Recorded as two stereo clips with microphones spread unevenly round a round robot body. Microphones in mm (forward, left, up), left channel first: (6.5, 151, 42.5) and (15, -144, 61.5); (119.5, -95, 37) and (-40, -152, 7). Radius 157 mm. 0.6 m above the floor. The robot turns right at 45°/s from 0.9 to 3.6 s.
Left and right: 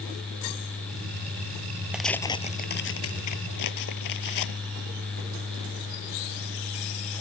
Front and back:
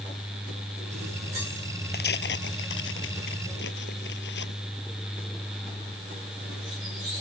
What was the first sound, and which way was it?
Tearing paper, straight ahead.